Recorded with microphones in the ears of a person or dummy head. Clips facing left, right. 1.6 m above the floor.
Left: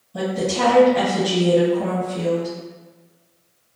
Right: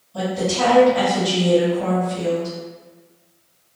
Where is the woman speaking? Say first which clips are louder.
Even; 30° left (ahead or behind), 1.5 m.